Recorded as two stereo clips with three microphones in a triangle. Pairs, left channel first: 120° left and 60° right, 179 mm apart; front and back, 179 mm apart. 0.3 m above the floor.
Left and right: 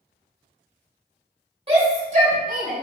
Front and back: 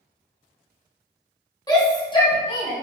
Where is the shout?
50° right, 1.4 m.